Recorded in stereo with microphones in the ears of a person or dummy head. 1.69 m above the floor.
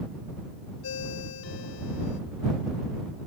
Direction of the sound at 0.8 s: 75° left (ahead or behind).